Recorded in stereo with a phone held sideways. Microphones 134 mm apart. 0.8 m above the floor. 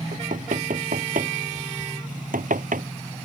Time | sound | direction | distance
0.1 | knocking | 85° right | ?